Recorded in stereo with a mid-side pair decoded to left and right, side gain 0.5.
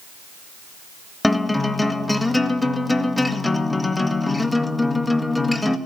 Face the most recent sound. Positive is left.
turn(degrees=10)